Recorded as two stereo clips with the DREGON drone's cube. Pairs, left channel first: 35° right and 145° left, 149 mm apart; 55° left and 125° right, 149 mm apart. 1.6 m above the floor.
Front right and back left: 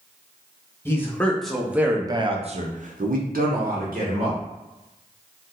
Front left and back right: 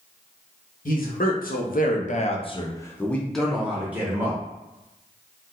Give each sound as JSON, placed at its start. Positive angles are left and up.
{"t": 0.8, "sound": "a man speaking", "azimuth_deg": 40, "distance_m": 1.0}